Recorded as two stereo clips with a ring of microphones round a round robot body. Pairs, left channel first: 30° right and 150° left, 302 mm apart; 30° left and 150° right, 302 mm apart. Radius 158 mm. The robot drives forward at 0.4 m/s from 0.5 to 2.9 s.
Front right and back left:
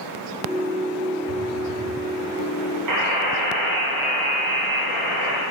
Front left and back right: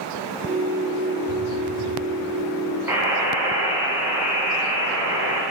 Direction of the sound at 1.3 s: 175° left.